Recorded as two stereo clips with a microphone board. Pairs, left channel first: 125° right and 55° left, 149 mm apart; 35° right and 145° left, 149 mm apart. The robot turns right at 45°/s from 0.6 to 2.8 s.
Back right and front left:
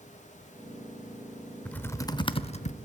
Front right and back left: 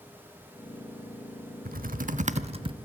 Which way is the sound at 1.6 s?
155° left.